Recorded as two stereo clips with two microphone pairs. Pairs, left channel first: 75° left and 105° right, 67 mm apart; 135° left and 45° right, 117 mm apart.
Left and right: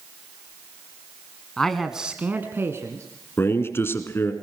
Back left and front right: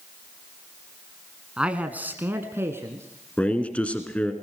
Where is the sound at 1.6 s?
20° left, 1.3 m; by 3.0 s 105° right, 1.8 m.